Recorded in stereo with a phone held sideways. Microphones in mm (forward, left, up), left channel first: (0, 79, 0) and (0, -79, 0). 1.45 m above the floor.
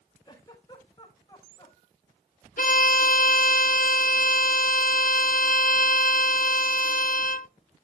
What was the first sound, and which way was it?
A giggle, 30° left (ahead or behind).